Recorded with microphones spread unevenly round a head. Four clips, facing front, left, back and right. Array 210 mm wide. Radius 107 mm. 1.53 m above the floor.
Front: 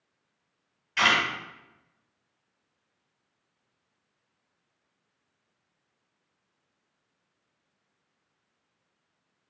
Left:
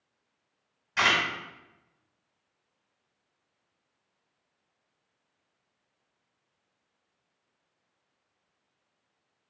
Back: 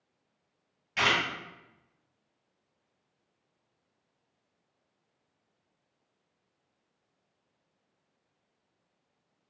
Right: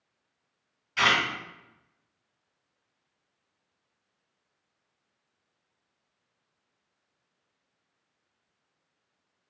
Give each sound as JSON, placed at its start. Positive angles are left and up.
{"t": 1.0, "sound": "a camera shutter", "azimuth_deg": 135, "distance_m": 2.0}